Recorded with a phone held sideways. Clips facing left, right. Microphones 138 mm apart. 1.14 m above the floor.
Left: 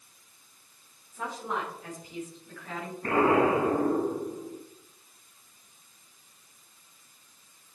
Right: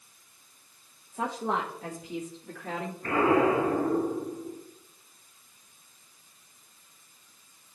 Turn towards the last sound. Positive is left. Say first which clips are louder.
# even
turn(degrees=40)  # may be behind; listen again after turning